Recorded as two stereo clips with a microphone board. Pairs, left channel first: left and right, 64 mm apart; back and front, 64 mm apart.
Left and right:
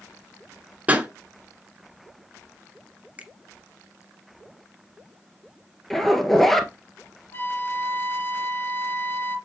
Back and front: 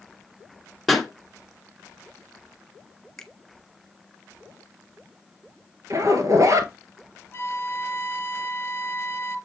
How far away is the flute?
About 1.1 m.